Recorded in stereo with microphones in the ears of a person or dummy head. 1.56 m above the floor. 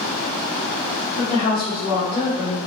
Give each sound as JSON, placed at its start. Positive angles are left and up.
{"t": 1.2, "sound": "a woman speaking", "side_deg": 35, "distance_m": 1.4}